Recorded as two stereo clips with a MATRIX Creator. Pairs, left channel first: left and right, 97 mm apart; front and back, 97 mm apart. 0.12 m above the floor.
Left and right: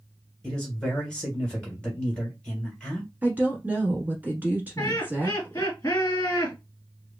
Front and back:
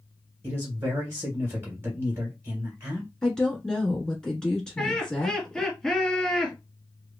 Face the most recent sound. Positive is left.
turn(degrees=80)